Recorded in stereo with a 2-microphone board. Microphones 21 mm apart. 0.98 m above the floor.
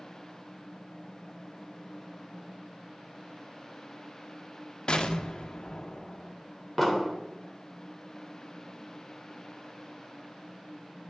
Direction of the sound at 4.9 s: 45° left (ahead or behind).